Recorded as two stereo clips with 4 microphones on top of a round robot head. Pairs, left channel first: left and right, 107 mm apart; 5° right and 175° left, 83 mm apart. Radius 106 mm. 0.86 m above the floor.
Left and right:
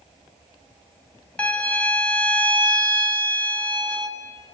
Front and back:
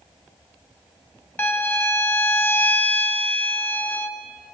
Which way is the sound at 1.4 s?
25° left.